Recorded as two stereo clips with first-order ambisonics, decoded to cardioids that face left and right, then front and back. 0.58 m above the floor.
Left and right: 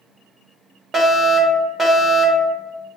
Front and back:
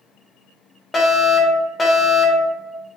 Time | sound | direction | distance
0.9 | a fire alarm | 40° right | 1.8 m